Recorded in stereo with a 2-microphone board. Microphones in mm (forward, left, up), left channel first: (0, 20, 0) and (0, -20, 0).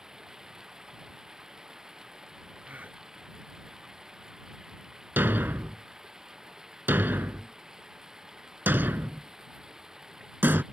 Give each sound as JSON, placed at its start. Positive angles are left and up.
{"t": 0.0, "sound": "running water", "side_deg": -15}
{"t": 2.6, "sound": "a gasp", "side_deg": -40}
{"t": 5.2, "sound": "a thud", "side_deg": -60}